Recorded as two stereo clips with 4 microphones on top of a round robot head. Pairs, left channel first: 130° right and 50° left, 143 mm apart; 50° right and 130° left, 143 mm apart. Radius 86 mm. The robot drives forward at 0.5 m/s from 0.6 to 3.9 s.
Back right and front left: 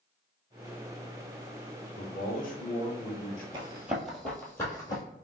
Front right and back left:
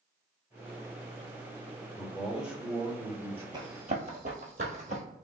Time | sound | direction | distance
2.0 | a man speaking | 140° right | 1.1 m
3.5 | running footsteps | 85° left | 0.9 m